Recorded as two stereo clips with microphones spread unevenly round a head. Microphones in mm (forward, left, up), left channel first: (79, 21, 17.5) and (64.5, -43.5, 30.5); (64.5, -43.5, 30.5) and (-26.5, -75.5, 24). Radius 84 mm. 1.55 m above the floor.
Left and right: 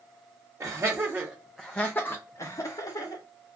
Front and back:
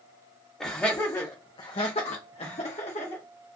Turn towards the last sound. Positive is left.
turn(degrees=50)